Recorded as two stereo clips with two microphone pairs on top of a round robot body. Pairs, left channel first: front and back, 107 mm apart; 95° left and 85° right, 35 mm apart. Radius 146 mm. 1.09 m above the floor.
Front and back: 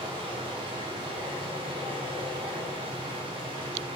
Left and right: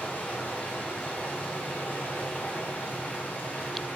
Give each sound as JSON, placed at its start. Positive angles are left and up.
{"t": 0.0, "sound": "running water", "azimuth_deg": 140, "distance_m": 2.0}